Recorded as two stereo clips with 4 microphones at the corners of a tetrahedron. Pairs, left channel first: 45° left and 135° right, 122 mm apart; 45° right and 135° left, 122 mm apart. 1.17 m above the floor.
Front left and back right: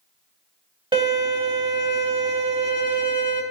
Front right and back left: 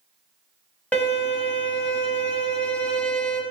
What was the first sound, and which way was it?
A violin, 120° right.